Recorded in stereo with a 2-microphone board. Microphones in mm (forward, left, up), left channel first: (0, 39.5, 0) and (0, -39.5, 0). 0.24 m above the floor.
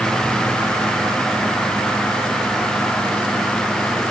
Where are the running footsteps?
No running footsteps in this recording.